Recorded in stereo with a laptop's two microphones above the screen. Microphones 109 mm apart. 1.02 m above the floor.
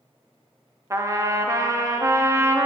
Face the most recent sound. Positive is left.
turn(degrees=-30)  # may be behind; listen again after turning